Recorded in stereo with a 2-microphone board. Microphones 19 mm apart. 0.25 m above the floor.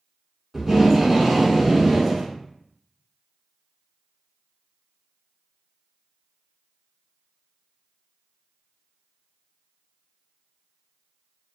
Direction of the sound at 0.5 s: 15° right (ahead or behind).